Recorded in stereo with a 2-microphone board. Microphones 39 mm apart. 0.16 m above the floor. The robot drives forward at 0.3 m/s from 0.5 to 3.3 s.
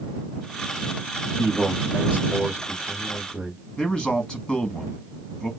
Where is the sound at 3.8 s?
20° left (ahead or behind), 1.0 m.